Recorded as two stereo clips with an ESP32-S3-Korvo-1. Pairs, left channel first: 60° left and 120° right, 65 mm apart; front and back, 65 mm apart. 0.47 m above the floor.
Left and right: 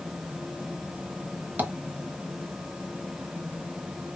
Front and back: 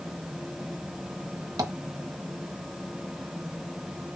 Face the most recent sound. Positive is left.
turn(degrees=180)